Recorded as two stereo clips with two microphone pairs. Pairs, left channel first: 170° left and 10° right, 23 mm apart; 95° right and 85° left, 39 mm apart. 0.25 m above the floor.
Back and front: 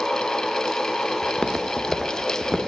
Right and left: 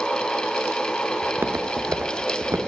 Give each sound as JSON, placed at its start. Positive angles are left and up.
{"t": 1.2, "sound": "footsteps", "azimuth_deg": 120, "distance_m": 2.0}